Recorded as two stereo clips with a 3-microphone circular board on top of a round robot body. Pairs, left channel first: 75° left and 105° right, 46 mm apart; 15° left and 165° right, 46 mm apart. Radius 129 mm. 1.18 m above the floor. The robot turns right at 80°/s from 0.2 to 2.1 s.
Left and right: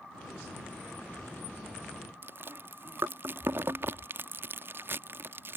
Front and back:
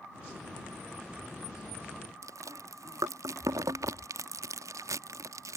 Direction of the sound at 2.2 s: 155° right.